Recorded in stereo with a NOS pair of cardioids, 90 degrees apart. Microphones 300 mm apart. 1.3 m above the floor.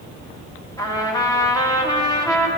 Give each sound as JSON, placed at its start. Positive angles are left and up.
{"t": 0.8, "sound": "a trumpet", "azimuth_deg": 10, "distance_m": 1.4}